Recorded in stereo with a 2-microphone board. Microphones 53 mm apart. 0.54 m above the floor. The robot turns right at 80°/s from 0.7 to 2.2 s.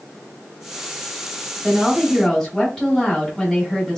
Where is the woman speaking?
30° right, 1.8 m; by 4.0 s 10° left, 1.8 m.